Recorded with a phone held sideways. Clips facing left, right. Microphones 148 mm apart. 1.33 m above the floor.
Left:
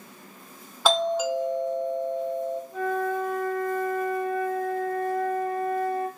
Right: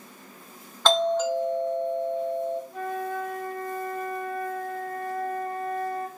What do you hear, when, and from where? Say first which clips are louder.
0.8 s a doorbell: right 1 dB; 5° left (ahead or behind), 0.6 m
2.7 s a flute: left 4 dB; 45° right (ahead or behind), 2 m